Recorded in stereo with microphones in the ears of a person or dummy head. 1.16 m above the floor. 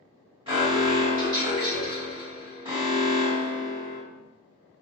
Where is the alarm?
25° right (ahead or behind), 1.4 m.